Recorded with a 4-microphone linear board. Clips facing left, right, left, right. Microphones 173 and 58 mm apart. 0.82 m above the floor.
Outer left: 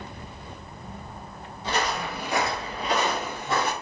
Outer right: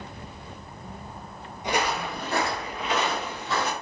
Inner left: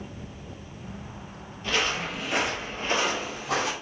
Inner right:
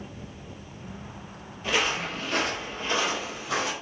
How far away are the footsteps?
About 1.0 m.